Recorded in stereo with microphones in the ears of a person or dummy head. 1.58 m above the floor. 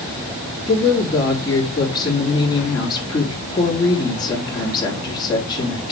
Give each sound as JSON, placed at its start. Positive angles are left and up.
{"t": 0.7, "sound": "a woman speaking", "side_deg": 25, "distance_m": 3.5}